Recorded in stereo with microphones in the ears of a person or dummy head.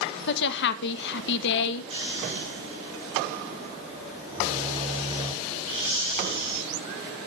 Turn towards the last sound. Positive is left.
turn(degrees=-30)  # may be behind; listen again after turning